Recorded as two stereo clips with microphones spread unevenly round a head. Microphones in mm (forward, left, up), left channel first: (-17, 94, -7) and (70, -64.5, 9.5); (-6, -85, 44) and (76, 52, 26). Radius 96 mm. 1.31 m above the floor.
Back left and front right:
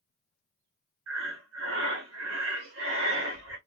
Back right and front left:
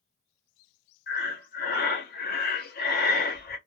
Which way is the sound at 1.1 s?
95° right.